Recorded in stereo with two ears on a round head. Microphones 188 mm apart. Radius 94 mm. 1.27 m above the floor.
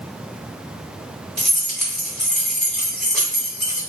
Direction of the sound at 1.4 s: 5° left (ahead or behind).